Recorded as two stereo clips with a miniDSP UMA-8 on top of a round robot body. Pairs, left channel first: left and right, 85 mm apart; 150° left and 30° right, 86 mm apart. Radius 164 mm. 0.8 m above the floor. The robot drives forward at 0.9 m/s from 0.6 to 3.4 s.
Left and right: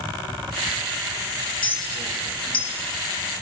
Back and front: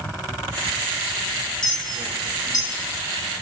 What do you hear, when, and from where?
1.6 s a clink: 65° left, 1.3 m; by 2.7 s 110° left, 1.3 m